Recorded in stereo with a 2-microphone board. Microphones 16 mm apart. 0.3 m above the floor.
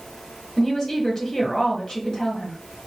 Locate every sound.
0.6 s a woman speaking: 25° left (ahead or behind), 0.9 m